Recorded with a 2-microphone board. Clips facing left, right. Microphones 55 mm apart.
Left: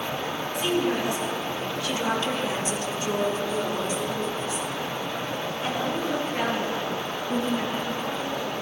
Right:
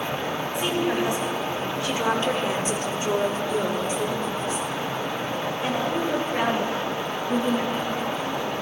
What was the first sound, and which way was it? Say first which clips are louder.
A woman speaking: even; 20° right (ahead or behind).